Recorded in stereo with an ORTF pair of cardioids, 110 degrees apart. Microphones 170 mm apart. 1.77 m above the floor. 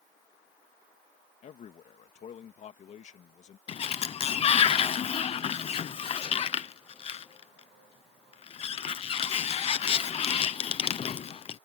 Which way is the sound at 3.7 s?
35° left.